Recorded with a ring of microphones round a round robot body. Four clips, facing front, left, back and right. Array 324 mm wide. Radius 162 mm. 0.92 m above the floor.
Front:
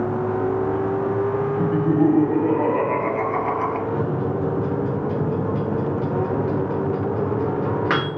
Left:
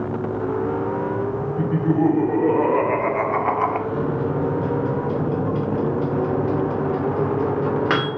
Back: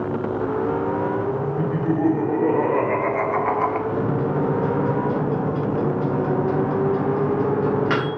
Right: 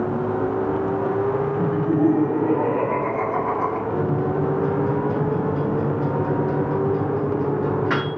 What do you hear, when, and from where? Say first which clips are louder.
1.6 s laughter: left 2 dB, front 4 dB; 105° left, 3 m; by 3.8 s 110° left, 1.0 m
3.9 s a microwave: right 1 dB, back 1 dB; 70° left, 2.5 m